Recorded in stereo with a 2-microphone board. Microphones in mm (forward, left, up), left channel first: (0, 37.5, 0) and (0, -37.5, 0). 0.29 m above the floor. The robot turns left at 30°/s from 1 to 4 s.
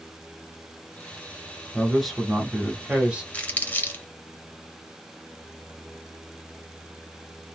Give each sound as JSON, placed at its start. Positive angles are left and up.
{"t": 1.7, "sound": "a man speaking", "azimuth_deg": 10, "distance_m": 1.3}
{"t": 3.3, "sound": "crumpling", "side_deg": 20, "distance_m": 0.8}